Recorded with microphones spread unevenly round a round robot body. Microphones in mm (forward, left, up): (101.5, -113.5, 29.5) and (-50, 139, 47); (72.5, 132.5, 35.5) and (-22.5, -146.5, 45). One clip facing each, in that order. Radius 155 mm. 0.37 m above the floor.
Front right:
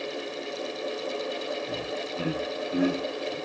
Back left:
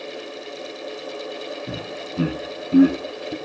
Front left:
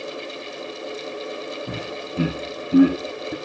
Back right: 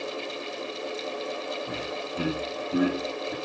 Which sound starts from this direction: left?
Laughter, at 1.7 s.